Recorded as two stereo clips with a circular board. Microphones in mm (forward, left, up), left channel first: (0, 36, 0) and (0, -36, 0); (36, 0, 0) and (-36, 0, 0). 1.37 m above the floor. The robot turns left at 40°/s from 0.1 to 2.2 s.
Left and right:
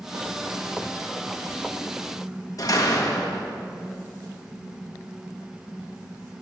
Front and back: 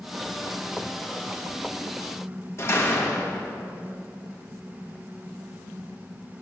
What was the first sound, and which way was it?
A door slam, 55° left.